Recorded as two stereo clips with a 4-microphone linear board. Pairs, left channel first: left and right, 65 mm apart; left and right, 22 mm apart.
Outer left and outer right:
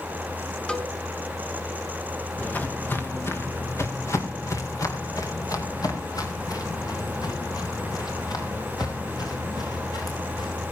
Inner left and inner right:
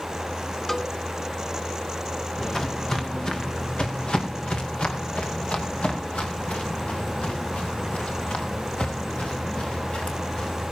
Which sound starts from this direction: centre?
A cowbell, at 0.7 s.